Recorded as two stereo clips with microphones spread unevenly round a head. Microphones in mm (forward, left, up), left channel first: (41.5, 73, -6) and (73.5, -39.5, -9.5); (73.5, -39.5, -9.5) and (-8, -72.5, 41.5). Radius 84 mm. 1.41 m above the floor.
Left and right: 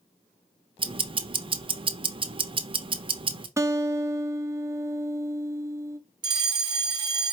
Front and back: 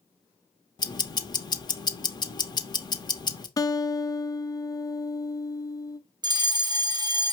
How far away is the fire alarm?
About 0.9 m.